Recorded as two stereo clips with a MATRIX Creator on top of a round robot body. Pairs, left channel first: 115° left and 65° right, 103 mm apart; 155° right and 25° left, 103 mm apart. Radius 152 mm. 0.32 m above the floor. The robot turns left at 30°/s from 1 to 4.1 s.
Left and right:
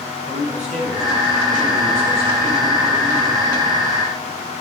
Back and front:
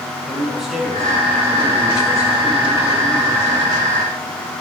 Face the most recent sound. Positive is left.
turn(degrees=-155)